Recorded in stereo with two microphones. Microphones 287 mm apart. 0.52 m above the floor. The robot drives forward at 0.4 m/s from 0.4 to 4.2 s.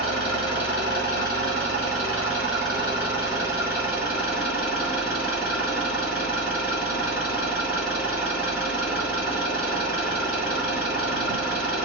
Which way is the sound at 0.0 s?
60° left (ahead or behind).